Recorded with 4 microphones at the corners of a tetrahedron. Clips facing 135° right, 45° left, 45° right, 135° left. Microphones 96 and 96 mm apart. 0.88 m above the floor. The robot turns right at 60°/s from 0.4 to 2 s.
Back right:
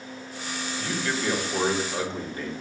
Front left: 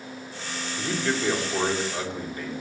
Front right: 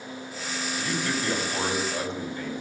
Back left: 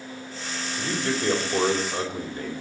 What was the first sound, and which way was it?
A man speaking, 95° left.